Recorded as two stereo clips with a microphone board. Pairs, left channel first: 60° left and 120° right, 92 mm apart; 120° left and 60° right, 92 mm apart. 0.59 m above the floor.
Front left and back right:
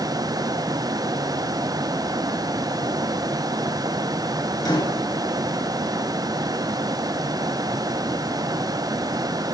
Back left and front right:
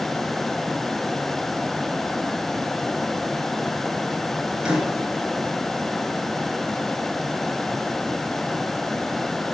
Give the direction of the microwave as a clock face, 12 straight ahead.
11 o'clock.